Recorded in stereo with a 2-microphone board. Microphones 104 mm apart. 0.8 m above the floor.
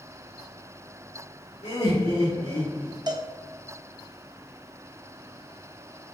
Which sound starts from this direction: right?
A cowbell, at 3.1 s.